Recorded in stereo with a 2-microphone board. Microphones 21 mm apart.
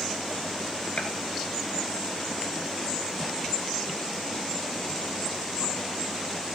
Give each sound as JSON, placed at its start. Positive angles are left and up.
{"t": 1.0, "sound": "a gunshot", "side_deg": 80, "distance_m": 1.5}